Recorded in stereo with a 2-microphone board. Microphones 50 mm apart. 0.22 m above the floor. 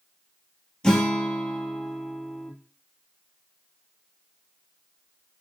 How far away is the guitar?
About 0.8 m.